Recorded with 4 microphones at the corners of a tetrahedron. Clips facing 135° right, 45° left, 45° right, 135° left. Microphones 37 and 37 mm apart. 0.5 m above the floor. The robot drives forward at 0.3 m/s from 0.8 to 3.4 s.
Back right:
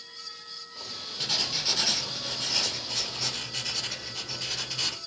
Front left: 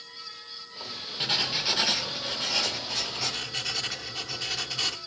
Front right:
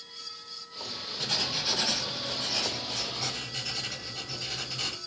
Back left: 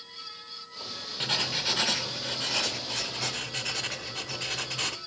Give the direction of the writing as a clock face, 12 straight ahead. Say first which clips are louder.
Front left 3 dB, back left 2 dB; 9 o'clock.